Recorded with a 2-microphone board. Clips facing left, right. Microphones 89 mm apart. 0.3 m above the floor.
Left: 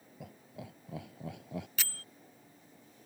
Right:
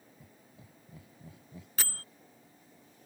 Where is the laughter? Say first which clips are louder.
Left 14 dB; 80° left; by 1.7 s 75° left (ahead or behind).